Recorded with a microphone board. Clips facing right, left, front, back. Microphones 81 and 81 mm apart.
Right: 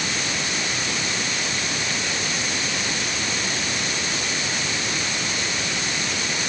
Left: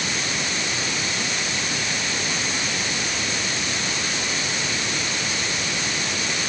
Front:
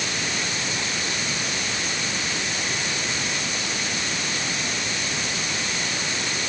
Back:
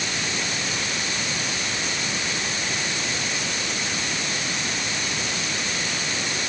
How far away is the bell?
I don't hear a bell.